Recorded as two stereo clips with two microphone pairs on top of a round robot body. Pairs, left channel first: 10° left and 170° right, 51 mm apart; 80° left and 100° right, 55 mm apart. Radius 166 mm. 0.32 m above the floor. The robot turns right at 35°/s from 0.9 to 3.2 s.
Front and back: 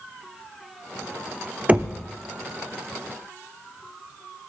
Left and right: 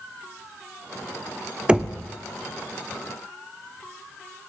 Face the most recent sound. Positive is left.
turn(degrees=-120)